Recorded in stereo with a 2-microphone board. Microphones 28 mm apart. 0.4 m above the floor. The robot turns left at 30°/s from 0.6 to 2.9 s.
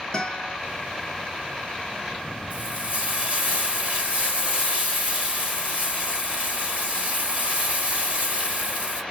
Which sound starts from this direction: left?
A guitar, at 0.1 s.